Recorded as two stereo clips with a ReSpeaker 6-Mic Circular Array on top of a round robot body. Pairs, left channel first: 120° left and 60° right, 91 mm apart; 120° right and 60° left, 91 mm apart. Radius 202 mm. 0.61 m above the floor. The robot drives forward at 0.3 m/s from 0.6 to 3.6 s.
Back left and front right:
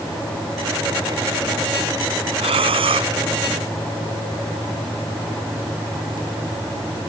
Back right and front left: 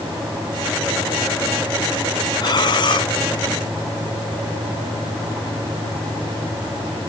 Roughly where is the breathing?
Right.